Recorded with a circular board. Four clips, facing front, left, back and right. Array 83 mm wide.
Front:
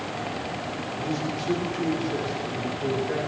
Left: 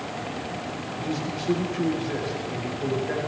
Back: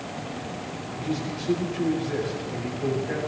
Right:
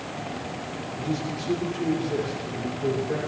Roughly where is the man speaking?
Left.